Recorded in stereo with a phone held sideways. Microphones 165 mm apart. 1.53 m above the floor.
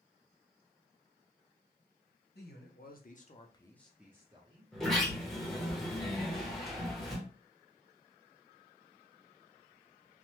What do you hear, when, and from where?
2.4 s a man speaking: 75° left (ahead or behind), 1.1 m; by 5.7 s 50° right (ahead or behind), 1.6 m
4.7 s a sliding door: centre (ahead or behind), 0.8 m